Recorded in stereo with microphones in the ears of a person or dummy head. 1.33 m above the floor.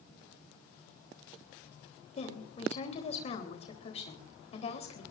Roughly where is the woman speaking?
Left.